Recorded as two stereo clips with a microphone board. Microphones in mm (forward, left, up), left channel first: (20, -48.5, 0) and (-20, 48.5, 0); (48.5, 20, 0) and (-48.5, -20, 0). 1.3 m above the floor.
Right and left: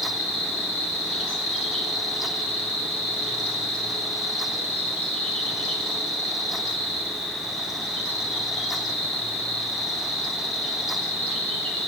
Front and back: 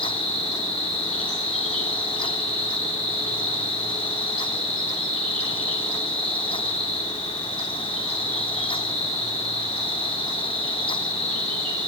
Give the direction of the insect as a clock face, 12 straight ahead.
9 o'clock.